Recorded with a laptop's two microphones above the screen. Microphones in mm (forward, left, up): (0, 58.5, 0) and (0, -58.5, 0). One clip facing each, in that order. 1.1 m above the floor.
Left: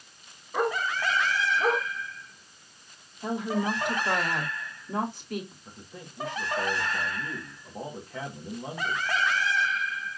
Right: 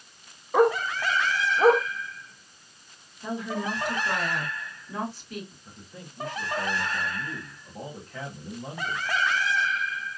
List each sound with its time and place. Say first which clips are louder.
0.5 s a dog barking: right 6 dB; 65° right (ahead or behind), 1.2 m
3.2 s a woman speaking: left 2 dB; 50° left (ahead or behind), 2 m
5.7 s a man speaking: even; 20° left (ahead or behind), 1.3 m